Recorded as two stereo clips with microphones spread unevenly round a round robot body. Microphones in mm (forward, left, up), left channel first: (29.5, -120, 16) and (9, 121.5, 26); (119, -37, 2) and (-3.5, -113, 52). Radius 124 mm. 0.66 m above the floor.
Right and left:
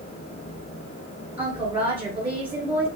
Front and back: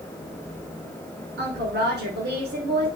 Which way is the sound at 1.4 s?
Straight behind.